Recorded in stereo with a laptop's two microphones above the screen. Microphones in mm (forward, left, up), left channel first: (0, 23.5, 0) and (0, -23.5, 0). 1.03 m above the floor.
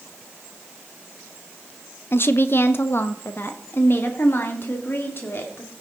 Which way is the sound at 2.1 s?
55° left (ahead or behind).